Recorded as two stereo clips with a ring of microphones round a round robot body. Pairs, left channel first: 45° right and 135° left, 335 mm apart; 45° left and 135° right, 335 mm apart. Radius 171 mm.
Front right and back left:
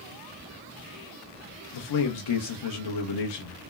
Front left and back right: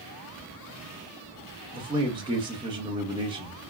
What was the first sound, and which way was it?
A man speaking, 60° right.